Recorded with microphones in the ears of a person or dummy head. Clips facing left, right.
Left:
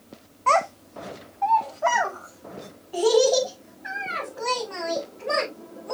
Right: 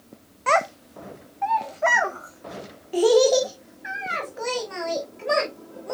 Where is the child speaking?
20° right (ahead or behind), 0.7 m; by 5.9 s 35° right (ahead or behind), 3.5 m.